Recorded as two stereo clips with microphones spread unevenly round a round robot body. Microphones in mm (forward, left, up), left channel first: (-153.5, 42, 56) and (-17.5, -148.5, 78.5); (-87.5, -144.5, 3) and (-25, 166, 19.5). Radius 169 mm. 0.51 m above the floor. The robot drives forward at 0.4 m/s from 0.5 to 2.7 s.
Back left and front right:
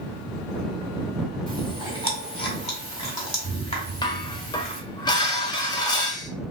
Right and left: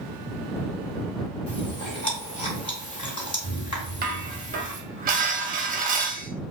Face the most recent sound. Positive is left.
turn(degrees=105)